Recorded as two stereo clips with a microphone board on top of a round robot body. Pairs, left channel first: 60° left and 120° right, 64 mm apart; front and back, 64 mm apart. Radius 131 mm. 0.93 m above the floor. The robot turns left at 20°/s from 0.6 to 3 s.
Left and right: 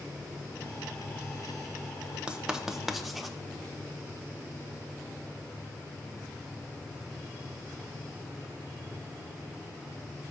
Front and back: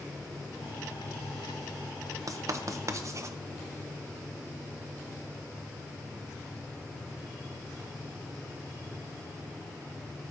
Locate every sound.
2.3 s writing: 165° left, 0.9 m; by 3.4 s 150° left, 0.9 m